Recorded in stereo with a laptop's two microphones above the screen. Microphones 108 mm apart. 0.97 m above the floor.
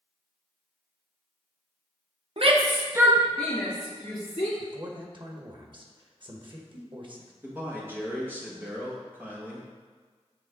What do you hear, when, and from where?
2.4 s a shout: 60° right (ahead or behind), 1.0 m; by 4.5 s 40° left (ahead or behind), 1.9 m
4.6 s a man speaking: 45° right (ahead or behind), 1.2 m
7.4 s a man speaking: 20° right (ahead or behind), 1.5 m